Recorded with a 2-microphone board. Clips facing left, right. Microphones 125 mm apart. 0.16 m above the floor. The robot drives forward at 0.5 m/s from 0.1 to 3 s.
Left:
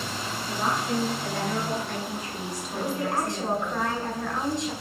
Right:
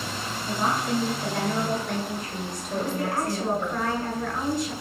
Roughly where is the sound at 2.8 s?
Left.